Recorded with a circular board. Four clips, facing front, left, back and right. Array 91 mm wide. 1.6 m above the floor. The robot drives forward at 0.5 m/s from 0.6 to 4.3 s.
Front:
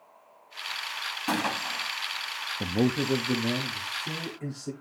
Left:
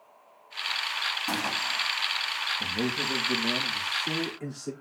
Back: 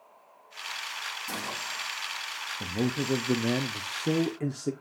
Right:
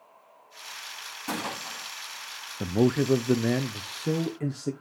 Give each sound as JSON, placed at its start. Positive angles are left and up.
{"t": 1.3, "sound": "a gunshot", "azimuth_deg": -5, "distance_m": 2.0}
{"t": 2.6, "sound": "a man speaking", "azimuth_deg": -60, "distance_m": 0.6}